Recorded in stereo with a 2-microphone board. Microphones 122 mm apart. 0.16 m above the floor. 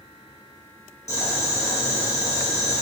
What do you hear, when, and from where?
1.1 s boiling: 70° left (ahead or behind), 3.5 m